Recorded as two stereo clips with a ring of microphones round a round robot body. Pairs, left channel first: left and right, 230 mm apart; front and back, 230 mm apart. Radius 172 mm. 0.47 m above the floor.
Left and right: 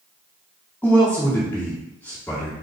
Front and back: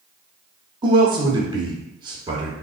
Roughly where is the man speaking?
Behind.